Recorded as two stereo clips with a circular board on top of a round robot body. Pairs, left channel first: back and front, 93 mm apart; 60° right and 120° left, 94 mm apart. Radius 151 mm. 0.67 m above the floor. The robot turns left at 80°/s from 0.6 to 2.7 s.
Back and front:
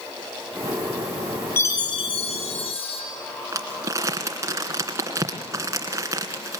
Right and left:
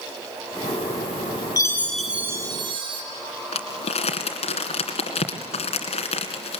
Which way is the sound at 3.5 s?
60° right.